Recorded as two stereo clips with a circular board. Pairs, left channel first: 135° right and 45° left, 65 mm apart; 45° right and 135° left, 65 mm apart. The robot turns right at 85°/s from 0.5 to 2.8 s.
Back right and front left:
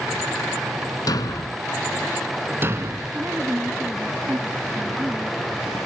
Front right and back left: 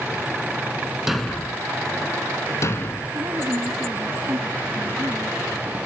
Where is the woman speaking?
100° left.